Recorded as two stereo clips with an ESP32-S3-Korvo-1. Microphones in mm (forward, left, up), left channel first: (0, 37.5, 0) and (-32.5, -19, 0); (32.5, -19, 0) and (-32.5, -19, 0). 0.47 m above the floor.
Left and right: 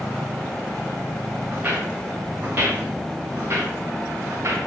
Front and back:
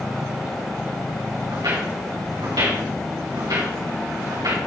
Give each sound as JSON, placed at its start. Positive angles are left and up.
{"t": 1.5, "sound": "footsteps", "azimuth_deg": 175, "distance_m": 2.5}